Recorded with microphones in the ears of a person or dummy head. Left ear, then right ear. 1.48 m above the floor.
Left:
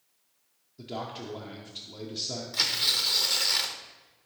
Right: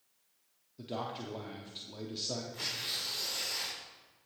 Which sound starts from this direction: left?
Tearing paper, at 2.5 s.